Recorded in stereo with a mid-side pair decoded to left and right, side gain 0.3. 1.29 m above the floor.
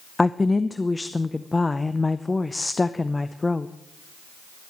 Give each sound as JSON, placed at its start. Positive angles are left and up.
{"t": 0.2, "sound": "a woman speaking", "azimuth_deg": 30, "distance_m": 0.7}